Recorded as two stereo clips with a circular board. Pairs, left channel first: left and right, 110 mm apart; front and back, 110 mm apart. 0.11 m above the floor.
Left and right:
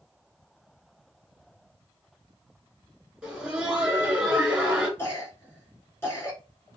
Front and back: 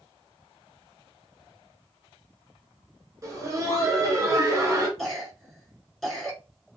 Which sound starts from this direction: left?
A cough, at 5.0 s.